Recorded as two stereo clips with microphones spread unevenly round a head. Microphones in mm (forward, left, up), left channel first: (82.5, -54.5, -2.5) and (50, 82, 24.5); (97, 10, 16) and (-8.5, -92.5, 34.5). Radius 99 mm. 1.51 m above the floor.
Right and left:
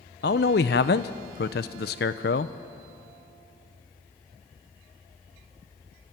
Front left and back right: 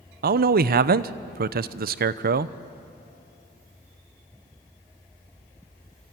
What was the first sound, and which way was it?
A man speaking, 120° right.